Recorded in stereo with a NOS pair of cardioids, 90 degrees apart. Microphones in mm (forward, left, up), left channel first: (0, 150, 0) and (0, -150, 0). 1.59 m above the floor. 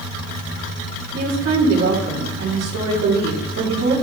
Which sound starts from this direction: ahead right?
A woman speaking, at 1.1 s.